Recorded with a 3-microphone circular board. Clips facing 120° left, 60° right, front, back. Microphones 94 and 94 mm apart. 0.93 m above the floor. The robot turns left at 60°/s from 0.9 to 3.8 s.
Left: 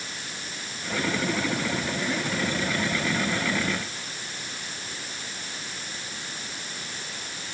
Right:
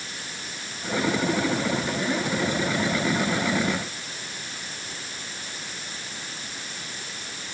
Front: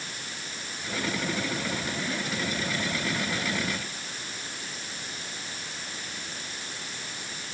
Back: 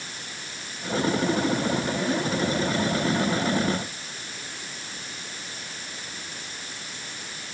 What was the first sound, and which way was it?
Only background noise.